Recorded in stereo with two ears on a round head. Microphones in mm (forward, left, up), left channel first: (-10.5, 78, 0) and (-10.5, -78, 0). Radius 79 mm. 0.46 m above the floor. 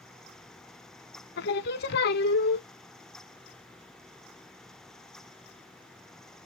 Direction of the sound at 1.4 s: 60° left (ahead or behind).